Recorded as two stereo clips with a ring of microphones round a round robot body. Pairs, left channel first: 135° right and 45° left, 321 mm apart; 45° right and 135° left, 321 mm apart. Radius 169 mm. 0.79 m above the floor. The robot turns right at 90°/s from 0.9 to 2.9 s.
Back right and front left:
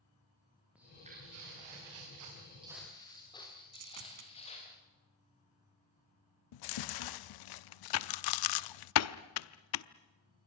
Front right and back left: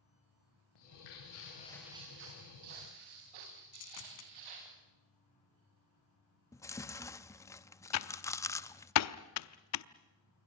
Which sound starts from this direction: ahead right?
Footsteps, at 0.8 s.